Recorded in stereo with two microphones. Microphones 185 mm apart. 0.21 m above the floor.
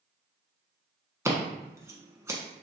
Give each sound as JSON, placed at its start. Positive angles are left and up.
{"t": 1.2, "sound": "scissors", "side_deg": -15, "distance_m": 0.9}